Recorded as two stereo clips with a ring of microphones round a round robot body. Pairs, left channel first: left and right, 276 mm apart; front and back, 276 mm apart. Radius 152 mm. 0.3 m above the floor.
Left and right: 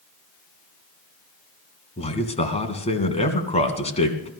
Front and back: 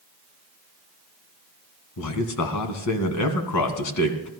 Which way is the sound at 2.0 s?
25° left.